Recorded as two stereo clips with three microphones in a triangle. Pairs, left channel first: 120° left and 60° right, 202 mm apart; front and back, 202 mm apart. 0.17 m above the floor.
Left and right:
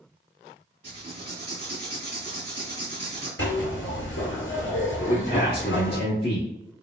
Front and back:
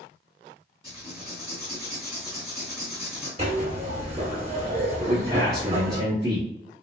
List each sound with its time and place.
0.8 s writing: 35° right, 2.0 m
3.4 s a zipper: 125° left, 1.4 m
5.0 s a man speaking: 125° left, 1.4 m